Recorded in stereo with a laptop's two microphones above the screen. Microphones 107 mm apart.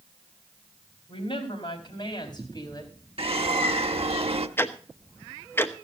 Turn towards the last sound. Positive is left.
turn(degrees=20)  # may be behind; listen again after turning